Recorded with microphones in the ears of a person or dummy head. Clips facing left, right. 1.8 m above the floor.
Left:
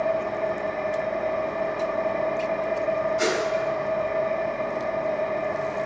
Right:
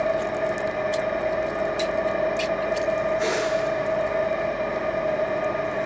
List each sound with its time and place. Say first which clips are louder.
0.0 s an engine running: right 1 dB; 10° right (ahead or behind), 1.1 m
3.2 s a whoosh: even; 80° left, 3.5 m